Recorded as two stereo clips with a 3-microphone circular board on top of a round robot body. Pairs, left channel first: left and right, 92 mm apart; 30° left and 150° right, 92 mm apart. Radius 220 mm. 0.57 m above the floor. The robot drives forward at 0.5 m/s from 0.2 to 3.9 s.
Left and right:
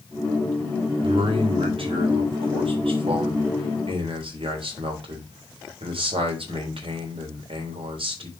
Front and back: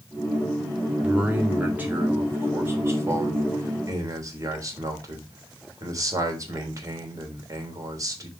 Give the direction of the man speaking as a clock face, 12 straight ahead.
2 o'clock.